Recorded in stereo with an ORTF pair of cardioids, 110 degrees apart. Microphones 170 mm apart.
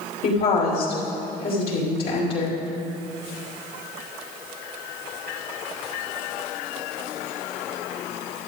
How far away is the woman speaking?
About 3 m.